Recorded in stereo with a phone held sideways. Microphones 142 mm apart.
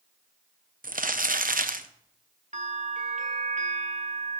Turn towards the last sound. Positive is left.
turn(degrees=-60)  # may be behind; listen again after turning